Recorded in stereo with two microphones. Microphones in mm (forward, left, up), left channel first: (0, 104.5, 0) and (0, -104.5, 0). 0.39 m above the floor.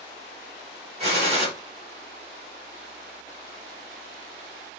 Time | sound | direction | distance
1.0 | a gunshot | 30° right (ahead or behind) | 1.0 m